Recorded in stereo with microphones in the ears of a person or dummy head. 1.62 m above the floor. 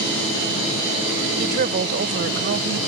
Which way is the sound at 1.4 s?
50° right (ahead or behind).